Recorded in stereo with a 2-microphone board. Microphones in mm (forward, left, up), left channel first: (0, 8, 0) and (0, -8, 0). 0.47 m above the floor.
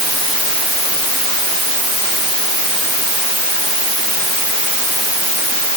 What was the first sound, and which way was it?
Only background noise.